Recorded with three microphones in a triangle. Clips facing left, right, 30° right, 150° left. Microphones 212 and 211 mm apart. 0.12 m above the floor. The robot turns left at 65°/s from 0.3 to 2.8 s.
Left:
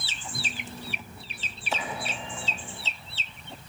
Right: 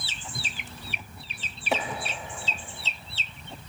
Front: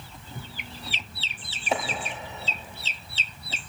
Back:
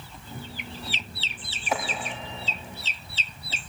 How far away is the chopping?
About 3 m.